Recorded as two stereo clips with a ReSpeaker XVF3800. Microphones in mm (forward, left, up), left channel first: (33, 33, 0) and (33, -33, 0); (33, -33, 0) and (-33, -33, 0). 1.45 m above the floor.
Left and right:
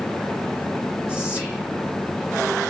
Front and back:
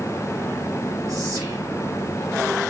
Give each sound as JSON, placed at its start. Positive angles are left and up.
{"t": 1.1, "sound": "whispering", "azimuth_deg": -160, "distance_m": 2.5}